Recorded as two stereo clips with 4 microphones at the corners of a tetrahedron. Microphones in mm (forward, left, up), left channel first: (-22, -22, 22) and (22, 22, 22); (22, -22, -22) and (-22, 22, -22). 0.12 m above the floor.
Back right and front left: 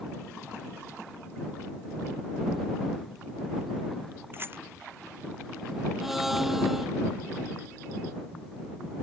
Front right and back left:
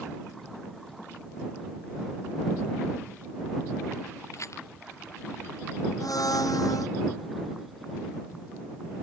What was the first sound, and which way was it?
A rattle, 10° right.